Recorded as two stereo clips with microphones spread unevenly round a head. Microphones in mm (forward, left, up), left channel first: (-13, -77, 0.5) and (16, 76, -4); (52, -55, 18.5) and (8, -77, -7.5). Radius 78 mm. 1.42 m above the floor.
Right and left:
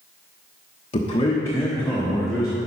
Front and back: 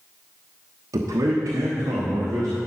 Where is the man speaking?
155° right, 1.1 m; by 2.6 s 165° left, 2 m.